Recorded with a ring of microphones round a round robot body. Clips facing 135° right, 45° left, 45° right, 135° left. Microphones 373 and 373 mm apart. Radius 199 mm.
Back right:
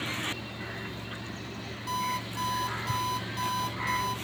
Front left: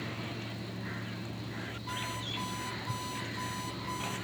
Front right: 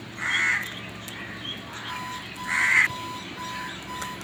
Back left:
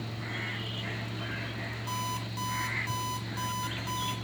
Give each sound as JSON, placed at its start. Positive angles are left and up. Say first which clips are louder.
{"t": 1.9, "sound": "an alarm clock", "louder": "back right 3 dB, back left 1 dB", "azimuth_deg": -170, "distance_m": 6.5}